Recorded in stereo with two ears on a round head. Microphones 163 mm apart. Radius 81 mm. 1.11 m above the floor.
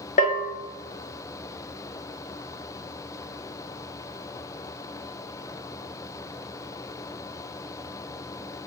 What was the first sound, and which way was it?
A bell, 45° left (ahead or behind).